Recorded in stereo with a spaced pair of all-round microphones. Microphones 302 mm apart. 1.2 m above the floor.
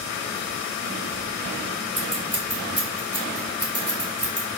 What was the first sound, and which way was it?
Scissors, 50° right (ahead or behind).